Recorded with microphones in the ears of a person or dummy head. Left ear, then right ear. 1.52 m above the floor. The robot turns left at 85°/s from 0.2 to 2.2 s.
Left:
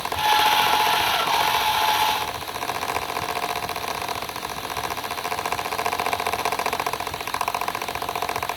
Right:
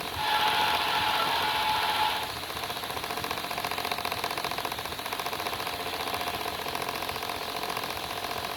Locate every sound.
Only background noise.